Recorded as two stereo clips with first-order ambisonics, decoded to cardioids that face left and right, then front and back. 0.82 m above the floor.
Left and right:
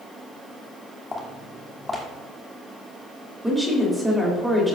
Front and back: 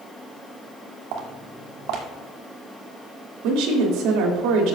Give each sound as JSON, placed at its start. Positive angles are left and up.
{"t": 1.1, "sound": "footsteps", "azimuth_deg": 170, "distance_m": 1.6}
{"t": 3.4, "sound": "a woman speaking", "azimuth_deg": -170, "distance_m": 2.5}